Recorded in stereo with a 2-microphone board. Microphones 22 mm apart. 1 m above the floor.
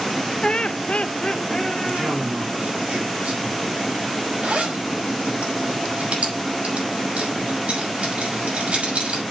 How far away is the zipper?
About 5.5 m.